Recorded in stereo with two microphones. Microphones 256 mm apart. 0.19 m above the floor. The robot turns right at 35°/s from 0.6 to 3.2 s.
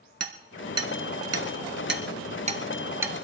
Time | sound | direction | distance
0.2 | hammering | 75° right (ahead or behind) | 1.1 m